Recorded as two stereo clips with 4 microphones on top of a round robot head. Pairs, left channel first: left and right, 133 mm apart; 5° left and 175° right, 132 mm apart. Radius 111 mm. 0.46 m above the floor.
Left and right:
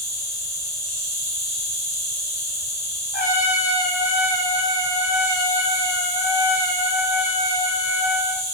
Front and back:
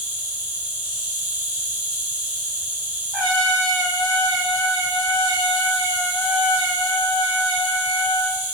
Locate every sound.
0.0 s an insect: 115° right, 1.2 m
3.1 s a trumpet: 95° left, 2.5 m